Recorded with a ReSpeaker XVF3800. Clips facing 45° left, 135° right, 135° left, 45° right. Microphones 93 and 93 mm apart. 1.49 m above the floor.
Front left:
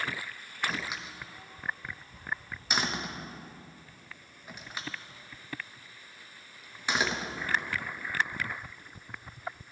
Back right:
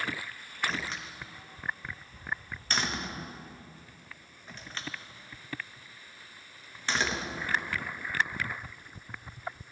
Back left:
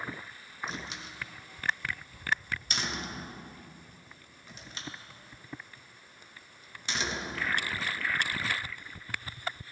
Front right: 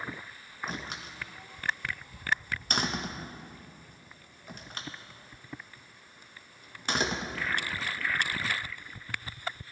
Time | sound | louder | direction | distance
0.7 | a door slam | even, front right 2 dB | 30° right | 0.9 m